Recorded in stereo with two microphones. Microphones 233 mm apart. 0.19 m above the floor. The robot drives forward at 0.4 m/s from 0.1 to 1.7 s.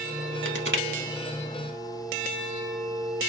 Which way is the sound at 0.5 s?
55° right (ahead or behind).